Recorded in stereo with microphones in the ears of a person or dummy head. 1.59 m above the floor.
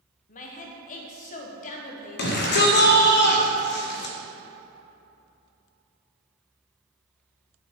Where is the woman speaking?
45° left (ahead or behind), 0.9 m.